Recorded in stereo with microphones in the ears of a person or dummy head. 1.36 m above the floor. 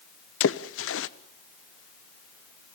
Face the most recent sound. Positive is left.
turn(degrees=70)  # may be behind; listen again after turning